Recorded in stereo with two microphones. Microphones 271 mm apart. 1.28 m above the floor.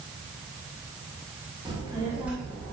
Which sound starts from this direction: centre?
A child speaking, at 1.6 s.